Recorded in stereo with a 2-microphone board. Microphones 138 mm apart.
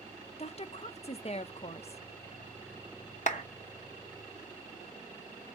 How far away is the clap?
About 0.7 m.